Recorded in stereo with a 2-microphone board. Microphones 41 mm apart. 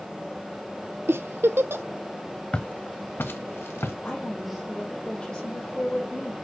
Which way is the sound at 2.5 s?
25° left (ahead or behind).